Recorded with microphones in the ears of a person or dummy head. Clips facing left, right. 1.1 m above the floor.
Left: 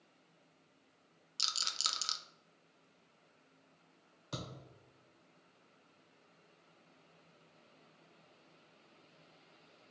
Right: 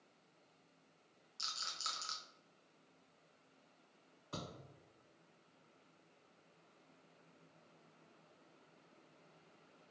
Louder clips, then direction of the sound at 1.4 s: Left 4 dB; 45° left (ahead or behind).